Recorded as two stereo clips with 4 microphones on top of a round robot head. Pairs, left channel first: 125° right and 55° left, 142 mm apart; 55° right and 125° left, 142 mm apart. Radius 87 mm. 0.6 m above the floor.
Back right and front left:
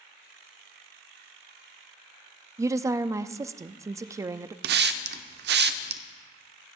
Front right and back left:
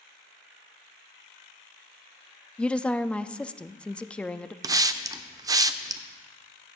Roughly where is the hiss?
Ahead left.